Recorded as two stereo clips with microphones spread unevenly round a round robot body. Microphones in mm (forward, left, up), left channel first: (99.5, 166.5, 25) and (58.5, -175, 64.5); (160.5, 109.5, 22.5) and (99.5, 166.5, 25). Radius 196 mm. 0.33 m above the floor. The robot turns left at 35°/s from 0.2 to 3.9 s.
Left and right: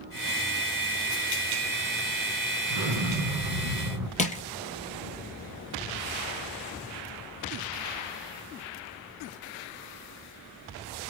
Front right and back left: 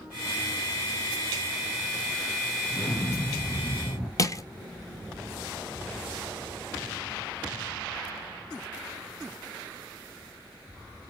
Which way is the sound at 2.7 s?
90° right.